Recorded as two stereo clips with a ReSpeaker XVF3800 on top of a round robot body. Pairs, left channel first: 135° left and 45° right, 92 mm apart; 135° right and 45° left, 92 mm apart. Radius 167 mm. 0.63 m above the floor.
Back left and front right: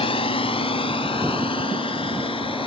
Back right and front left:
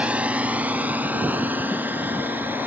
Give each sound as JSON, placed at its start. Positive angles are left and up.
{"t": 0.0, "sound": "a drone", "azimuth_deg": 120}